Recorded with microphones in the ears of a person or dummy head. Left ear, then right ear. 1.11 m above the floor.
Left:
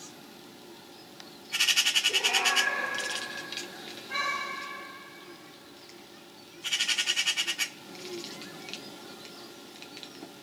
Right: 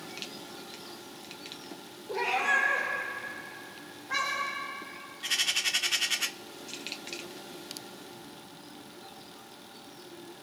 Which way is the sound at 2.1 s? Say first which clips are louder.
Left 2 dB; 30° right (ahead or behind).